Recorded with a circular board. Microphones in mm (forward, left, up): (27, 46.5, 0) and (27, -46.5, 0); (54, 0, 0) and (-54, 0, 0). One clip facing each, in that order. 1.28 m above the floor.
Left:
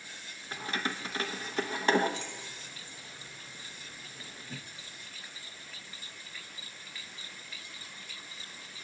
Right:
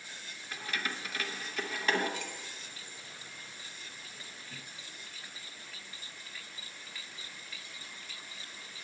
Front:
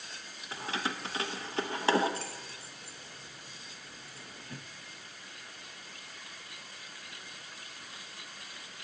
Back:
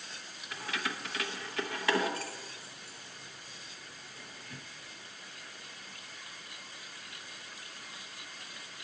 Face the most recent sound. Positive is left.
turn(degrees=45)